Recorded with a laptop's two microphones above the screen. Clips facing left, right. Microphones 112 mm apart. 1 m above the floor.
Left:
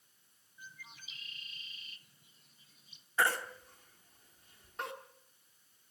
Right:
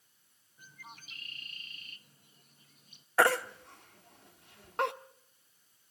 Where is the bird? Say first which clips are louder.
Right 2 dB; 50° right (ahead or behind), 1.3 m.